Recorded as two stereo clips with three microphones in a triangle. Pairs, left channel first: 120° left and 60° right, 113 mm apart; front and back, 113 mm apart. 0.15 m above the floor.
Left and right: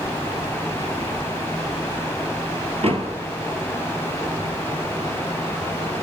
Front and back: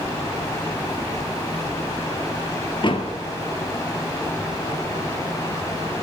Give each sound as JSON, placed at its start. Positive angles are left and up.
{"t": 2.8, "sound": "a door slam", "azimuth_deg": -40, "distance_m": 1.8}